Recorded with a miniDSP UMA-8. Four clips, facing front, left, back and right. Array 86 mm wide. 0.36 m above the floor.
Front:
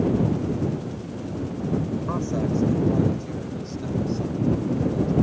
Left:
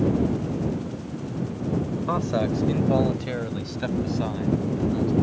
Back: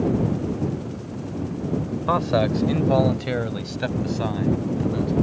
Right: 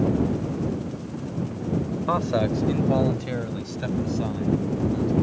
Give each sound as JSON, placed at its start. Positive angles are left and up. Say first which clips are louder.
{"t": 2.1, "sound": "a man speaking", "louder": "right 2 dB, back 8 dB", "azimuth_deg": -160}